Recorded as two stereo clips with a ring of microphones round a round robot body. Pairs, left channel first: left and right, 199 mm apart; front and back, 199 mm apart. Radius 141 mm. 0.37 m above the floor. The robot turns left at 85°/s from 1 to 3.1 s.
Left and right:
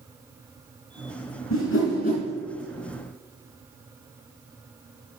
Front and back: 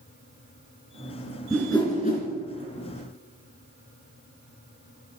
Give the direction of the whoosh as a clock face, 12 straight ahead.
9 o'clock.